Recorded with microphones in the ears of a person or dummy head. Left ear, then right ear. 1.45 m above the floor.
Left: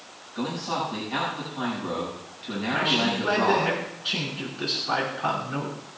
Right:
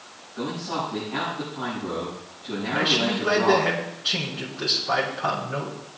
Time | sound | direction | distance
0.3 | a man speaking | 70° left (ahead or behind) | 7.5 m
2.7 | a man speaking | 5° left (ahead or behind) | 5.5 m